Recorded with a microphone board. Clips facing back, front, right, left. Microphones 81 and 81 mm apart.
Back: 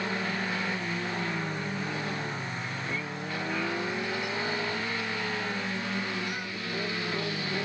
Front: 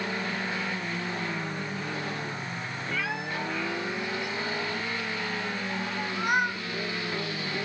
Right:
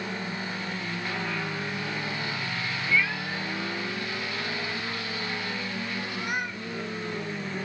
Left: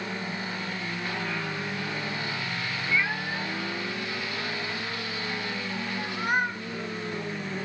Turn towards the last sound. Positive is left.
turn(degrees=35)